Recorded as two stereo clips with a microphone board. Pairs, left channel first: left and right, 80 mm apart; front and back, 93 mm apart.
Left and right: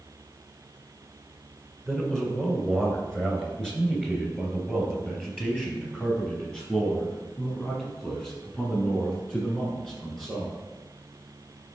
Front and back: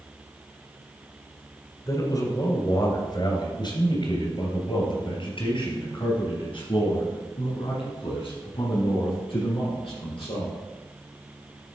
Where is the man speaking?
5° left, 1.9 m; by 10.6 s 10° left, 6.5 m.